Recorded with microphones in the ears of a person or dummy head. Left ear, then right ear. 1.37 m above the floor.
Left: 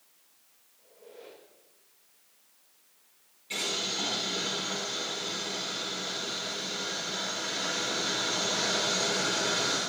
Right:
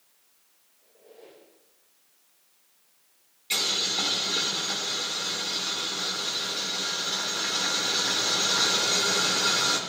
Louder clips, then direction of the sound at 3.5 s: Right 5 dB; 50° right (ahead or behind).